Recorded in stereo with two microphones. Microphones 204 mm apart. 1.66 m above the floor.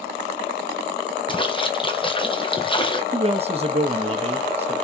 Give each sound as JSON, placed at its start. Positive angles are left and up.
{"t": 1.3, "sound": "a splash", "side_deg": 25, "distance_m": 0.8}
{"t": 3.1, "sound": "a man speaking", "side_deg": -30, "distance_m": 0.7}